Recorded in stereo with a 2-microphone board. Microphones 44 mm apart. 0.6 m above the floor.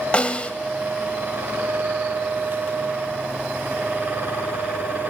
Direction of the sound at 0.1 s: 30° left (ahead or behind).